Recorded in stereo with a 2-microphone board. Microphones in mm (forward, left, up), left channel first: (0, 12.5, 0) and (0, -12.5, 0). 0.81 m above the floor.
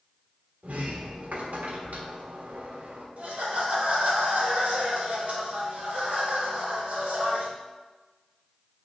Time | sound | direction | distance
0.6 | a sliding door | 85° right | 1.3 m
3.2 | laughter | 65° right (ahead or behind) | 3 m